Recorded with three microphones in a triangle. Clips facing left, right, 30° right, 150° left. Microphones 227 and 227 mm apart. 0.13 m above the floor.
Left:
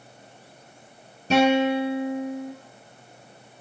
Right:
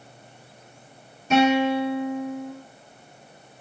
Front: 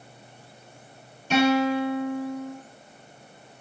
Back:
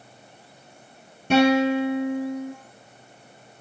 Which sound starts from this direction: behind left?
A guitar, at 1.3 s.